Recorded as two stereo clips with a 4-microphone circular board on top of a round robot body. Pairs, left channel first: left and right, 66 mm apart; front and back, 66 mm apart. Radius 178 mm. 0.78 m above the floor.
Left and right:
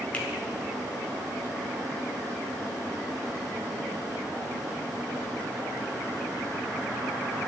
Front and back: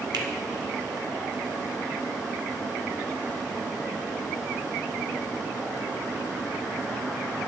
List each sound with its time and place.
0.1 s a finger snap: 160° left, 1.3 m